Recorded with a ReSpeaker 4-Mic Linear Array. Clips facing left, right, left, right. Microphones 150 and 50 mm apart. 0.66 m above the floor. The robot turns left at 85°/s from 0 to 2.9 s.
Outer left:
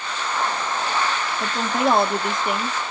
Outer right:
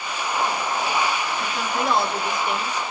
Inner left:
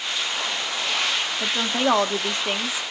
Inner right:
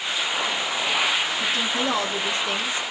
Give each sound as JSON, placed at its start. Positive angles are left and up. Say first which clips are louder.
{"t": 1.4, "sound": "a woman speaking", "louder": "outer left 8 dB, inner left 1 dB", "azimuth_deg": 150, "distance_m": 1.0}